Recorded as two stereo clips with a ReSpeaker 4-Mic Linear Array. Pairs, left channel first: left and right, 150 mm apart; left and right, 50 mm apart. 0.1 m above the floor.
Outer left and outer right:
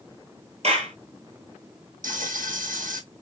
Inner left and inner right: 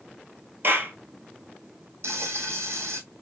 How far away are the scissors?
I don't hear scissors.